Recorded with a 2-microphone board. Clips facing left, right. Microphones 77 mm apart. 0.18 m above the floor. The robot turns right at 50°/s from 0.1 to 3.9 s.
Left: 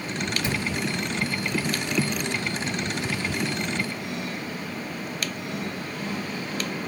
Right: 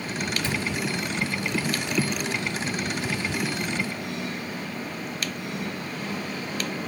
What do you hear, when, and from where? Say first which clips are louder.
0.4 s a cupboard door: left 1 dB; 15° left (ahead or behind), 2 m; by 0.7 s 5° left (ahead or behind), 2 m